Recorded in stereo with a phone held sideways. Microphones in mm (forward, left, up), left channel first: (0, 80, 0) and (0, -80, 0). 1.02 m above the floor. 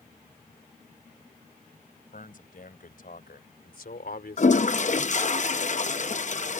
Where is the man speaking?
60° left (ahead or behind); by 5.3 s 80° left.